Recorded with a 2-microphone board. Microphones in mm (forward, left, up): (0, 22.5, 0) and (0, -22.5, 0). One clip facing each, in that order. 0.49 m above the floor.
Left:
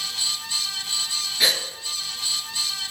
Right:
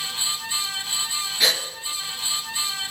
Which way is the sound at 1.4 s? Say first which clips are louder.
Even; centre (ahead or behind).